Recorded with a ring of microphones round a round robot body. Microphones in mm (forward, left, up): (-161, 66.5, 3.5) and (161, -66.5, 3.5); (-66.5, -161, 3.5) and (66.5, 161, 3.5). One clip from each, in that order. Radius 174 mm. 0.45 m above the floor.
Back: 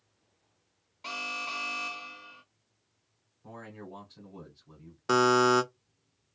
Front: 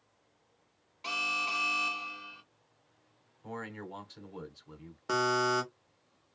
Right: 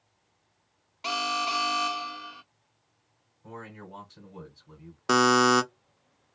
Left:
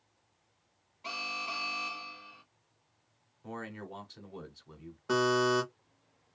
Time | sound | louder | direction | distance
1.0 | an alarm | front 3 dB, right 8 dB | 100° right | 0.7 m
3.4 | a man speaking | front 4 dB, left 1 dB | 10° left | 1.1 m
5.1 | a buzzer | back 6 dB, right 7 dB | 130° right | 0.6 m